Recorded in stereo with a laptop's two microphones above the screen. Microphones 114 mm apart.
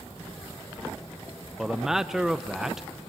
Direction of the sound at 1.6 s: 5° right (ahead or behind).